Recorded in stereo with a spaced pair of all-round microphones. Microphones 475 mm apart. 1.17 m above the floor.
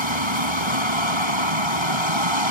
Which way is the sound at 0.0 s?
75° right (ahead or behind).